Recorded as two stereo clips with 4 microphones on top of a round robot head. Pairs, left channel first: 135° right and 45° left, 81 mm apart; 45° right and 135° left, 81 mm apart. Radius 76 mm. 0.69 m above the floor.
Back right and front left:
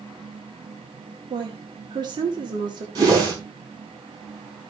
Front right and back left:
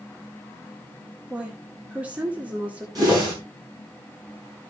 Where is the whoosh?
90° left, 4.5 m.